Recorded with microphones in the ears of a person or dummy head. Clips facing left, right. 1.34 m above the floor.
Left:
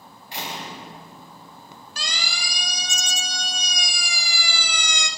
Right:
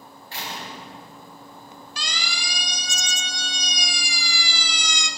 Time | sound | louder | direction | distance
0.3 | a door slam | left 2 dB | 20° left (ahead or behind) | 5.5 m
2.0 | a siren | even | 35° left (ahead or behind) | 4 m